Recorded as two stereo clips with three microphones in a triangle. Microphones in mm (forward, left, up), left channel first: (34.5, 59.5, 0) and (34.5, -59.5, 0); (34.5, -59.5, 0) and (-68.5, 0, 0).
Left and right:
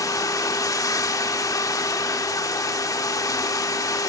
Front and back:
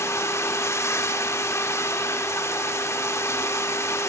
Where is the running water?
35° left, 1.6 m.